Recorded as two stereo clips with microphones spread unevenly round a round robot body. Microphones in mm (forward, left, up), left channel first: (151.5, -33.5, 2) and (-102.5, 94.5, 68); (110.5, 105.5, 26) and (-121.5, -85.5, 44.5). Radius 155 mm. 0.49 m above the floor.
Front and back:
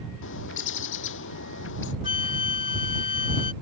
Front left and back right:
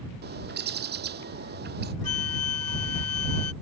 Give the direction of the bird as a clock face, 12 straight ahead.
3 o'clock.